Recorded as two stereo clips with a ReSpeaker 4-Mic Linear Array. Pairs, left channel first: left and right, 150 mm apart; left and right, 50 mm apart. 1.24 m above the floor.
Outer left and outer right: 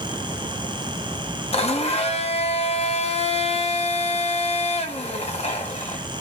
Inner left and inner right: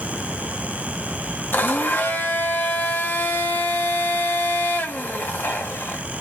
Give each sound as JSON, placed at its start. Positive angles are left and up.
{"t": 1.5, "sound": "a blender", "side_deg": 45, "distance_m": 1.2}